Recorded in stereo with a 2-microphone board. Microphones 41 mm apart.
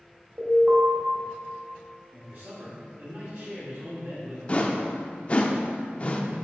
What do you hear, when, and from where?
0.4 s an alarm: 45° right (ahead or behind), 1.9 m
2.1 s a man speaking: 50° right (ahead or behind), 1.6 m
4.5 s a whoosh: 35° left (ahead or behind), 0.5 m